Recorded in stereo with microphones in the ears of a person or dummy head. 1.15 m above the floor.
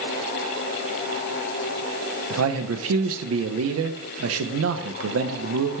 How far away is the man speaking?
About 0.8 m.